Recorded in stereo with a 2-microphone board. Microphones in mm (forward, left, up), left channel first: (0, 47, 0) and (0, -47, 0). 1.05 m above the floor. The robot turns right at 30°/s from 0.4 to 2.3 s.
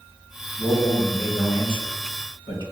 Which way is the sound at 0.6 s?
55° left.